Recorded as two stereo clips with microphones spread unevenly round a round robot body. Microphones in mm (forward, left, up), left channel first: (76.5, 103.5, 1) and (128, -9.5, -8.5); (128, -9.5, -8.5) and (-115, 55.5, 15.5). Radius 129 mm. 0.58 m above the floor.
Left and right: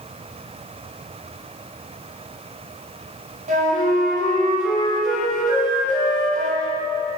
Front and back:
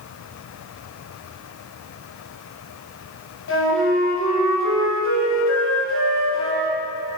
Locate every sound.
3.5 s a flute: 60° right, 2.5 m